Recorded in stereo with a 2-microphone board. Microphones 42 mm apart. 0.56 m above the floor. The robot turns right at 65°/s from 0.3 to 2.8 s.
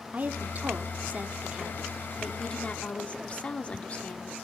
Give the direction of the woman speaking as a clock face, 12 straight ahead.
4 o'clock.